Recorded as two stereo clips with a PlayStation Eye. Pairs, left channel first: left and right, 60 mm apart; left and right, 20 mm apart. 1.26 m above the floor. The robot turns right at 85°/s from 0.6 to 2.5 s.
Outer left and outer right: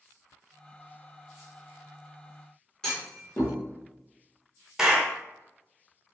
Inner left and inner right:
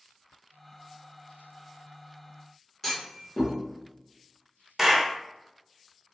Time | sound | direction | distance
2.8 | a clunk | 10° left (ahead or behind) | 1.1 m
4.8 | a clap | 10° right (ahead or behind) | 0.6 m